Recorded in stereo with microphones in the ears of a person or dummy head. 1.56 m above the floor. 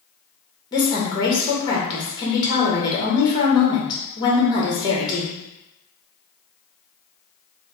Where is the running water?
No running water in this recording.